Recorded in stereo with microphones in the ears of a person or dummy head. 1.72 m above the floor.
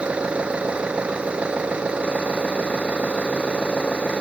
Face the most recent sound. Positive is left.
turn(degrees=-10)  # may be behind; listen again after turning